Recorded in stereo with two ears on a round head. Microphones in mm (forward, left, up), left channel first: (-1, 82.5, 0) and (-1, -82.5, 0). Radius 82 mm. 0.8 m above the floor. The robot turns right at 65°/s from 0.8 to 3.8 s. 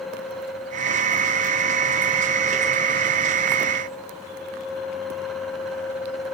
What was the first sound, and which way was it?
Only background noise.